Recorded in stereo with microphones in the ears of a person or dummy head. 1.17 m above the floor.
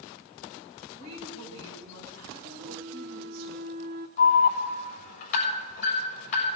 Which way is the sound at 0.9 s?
85° right.